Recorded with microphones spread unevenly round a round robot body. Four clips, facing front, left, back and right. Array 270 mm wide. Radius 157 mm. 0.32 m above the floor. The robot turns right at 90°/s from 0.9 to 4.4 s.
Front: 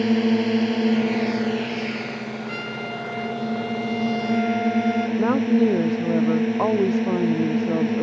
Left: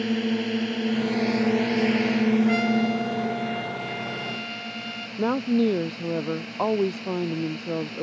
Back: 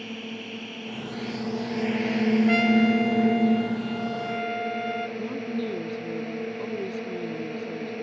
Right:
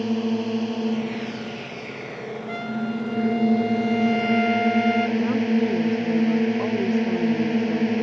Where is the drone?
5° left; by 8.0 s 40° right.